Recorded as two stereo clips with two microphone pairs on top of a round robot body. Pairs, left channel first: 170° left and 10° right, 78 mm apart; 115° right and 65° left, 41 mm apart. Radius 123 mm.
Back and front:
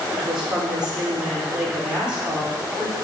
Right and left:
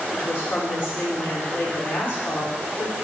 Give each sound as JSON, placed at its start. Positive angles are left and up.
{"t": 0.1, "sound": "a woman speaking", "azimuth_deg": -90, "distance_m": 3.0}